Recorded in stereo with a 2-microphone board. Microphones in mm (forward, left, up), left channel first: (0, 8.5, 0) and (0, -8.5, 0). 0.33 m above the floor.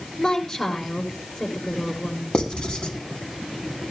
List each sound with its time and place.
0.2 s a woman speaking: 45° left (ahead or behind), 5.5 m
2.3 s writing: 50° left (ahead or behind), 3.5 m